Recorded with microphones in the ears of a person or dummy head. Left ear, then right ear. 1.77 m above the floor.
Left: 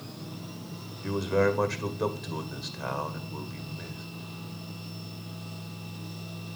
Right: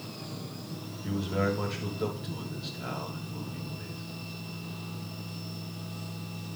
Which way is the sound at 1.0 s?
65° left (ahead or behind).